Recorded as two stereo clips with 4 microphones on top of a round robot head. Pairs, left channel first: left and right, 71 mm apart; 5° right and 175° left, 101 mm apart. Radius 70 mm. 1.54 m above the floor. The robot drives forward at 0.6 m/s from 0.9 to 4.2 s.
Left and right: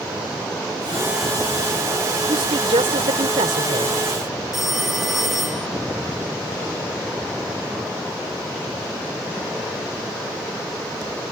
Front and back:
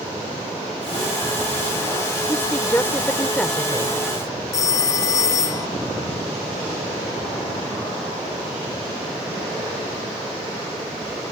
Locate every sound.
2.3 s a woman speaking: 75° right; by 3.9 s 90° right
4.5 s a phone ringing: 5° right